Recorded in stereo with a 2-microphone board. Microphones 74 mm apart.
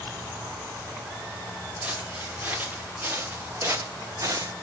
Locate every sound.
1.8 s footsteps: 20° right (ahead or behind), 3 m; by 4.5 s 50° right (ahead or behind), 1.1 m